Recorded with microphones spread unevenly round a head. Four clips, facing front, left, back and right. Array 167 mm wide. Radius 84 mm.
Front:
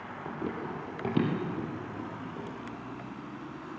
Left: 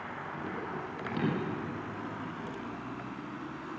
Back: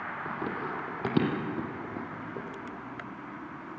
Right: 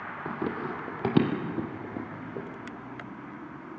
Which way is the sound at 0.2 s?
85° right.